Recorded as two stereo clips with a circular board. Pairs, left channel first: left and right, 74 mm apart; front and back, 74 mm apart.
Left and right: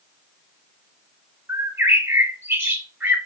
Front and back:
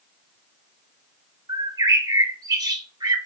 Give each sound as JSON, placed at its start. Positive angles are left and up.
{"t": 1.5, "sound": "a bird", "azimuth_deg": -150, "distance_m": 0.6}